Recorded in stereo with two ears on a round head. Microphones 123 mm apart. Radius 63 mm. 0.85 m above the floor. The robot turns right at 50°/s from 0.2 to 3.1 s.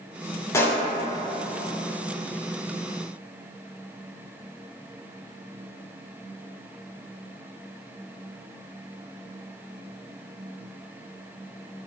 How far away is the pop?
About 0.7 m.